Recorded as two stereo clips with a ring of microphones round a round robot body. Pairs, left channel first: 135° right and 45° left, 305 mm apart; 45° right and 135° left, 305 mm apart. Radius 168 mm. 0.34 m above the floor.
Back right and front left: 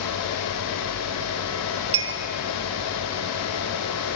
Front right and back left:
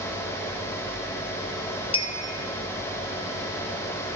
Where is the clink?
20° left, 0.6 m.